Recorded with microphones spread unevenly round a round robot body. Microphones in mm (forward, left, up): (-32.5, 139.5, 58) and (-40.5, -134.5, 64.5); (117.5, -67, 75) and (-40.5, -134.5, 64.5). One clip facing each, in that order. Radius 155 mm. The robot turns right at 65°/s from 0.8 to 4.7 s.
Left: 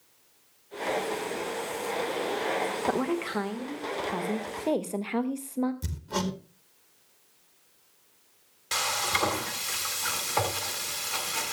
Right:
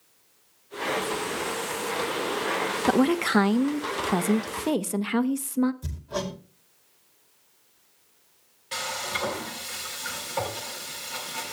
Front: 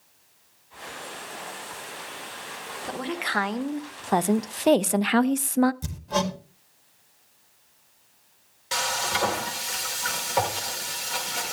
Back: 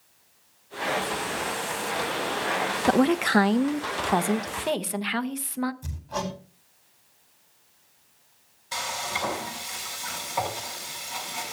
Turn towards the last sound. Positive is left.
turn(degrees=55)